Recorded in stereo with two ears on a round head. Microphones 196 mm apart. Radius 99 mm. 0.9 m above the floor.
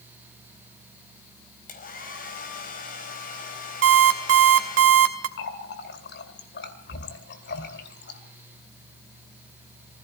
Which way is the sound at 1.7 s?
40° left (ahead or behind).